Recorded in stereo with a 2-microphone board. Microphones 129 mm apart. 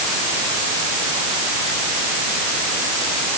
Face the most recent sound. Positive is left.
No sound to turn to.